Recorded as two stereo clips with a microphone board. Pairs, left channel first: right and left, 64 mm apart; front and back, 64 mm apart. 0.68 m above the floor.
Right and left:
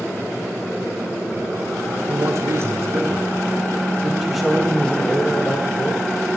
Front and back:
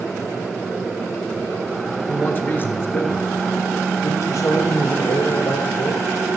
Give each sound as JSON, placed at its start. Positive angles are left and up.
{"t": 2.1, "sound": "a man speaking", "azimuth_deg": 55, "distance_m": 2.0}